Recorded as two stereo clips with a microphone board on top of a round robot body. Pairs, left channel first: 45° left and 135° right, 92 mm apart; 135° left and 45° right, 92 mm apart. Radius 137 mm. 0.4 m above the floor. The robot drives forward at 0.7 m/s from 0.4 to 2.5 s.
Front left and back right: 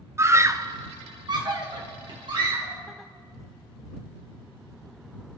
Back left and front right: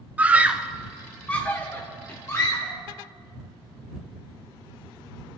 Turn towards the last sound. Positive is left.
turn(degrees=-165)